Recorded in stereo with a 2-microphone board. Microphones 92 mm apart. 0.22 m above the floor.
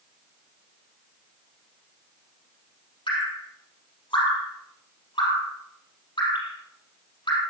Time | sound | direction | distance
3.1 | dripping | 55° left (ahead or behind) | 4 m